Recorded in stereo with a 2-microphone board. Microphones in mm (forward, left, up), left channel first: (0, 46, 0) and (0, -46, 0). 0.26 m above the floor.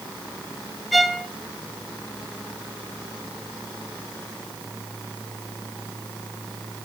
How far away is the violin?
About 1.0 m.